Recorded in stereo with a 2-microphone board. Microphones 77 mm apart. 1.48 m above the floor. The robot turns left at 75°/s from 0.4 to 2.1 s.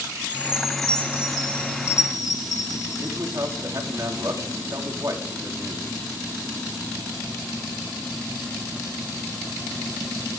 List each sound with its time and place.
0.3 s a chime: 110° right, 6 m; by 3.6 s 120° left, 6 m
3.0 s a man speaking: 45° right (ahead or behind), 4 m